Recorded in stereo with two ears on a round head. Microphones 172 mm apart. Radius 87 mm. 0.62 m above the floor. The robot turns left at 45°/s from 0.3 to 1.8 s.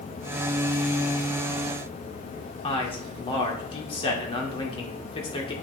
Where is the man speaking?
30° left (ahead or behind), 1.8 m.